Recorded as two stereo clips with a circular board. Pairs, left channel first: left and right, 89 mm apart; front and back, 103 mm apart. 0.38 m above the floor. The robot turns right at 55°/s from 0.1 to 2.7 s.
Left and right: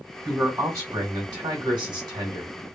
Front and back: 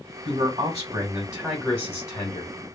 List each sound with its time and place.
0.2 s a man speaking: 170° right, 1.5 m; by 2.5 s 45° right, 1.5 m